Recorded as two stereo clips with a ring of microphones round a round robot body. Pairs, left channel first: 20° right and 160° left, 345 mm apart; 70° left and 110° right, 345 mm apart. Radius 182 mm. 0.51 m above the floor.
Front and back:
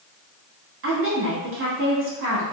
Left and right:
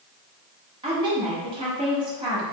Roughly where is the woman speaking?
Behind.